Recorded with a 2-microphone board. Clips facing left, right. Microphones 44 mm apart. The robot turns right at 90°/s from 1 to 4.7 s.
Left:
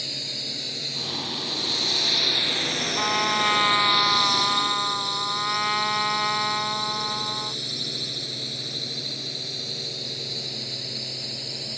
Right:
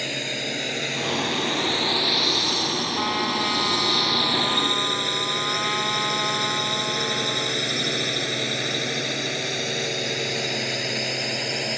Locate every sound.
0.0 s a drone: 50° right (ahead or behind); by 11.8 s 65° right (ahead or behind)
3.0 s a trumpet: straight ahead; by 7.6 s 160° left